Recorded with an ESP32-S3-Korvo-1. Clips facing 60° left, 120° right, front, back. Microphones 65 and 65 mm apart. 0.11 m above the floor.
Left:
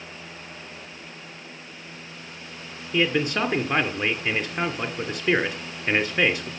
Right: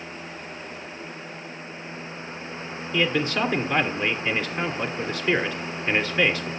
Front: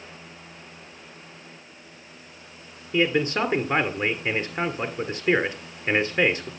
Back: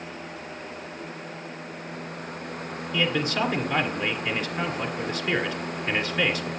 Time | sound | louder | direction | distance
2.9 | a man speaking | left 1 dB, front 3 dB | 10° left | 1.4 m